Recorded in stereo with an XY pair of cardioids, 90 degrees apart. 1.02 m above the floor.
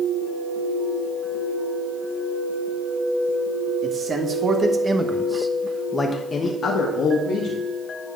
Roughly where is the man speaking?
Ahead right.